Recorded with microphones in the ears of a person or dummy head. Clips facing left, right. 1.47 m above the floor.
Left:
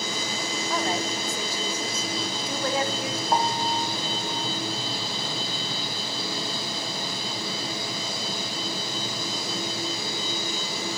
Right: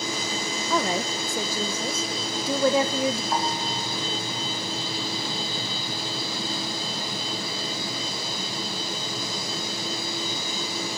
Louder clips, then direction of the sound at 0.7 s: Right 3 dB; 65° right (ahead or behind).